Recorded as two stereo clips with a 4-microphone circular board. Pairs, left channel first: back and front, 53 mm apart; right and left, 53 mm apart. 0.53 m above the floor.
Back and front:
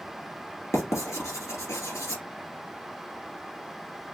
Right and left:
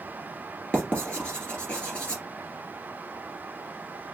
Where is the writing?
160° right, 1.7 m.